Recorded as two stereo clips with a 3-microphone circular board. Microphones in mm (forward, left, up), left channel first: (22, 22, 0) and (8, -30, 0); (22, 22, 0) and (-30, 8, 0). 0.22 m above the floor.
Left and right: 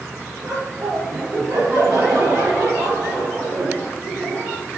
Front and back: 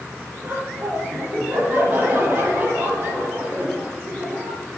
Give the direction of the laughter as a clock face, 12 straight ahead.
4 o'clock.